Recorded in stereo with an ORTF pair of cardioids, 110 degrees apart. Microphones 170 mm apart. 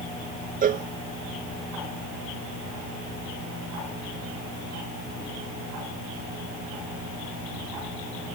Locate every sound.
0.6 s a cowbell: 55° right